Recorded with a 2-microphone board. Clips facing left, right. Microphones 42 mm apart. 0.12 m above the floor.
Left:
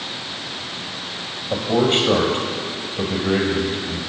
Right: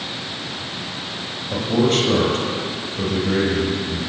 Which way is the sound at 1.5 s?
20° left (ahead or behind).